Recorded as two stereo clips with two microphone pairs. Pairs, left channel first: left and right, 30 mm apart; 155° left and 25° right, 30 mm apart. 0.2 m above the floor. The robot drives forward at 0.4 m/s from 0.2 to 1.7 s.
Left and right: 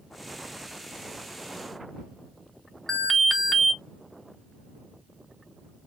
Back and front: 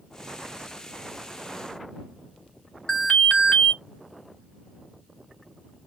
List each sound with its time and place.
2.9 s an alarm: 165° left, 0.9 m